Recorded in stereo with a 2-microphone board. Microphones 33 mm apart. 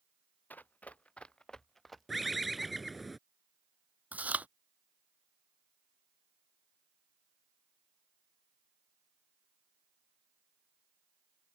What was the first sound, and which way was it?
Running footsteps, 60° left (ahead or behind).